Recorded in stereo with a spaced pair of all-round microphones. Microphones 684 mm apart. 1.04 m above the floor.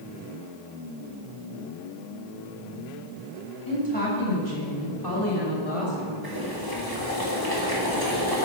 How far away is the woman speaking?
About 4.5 m.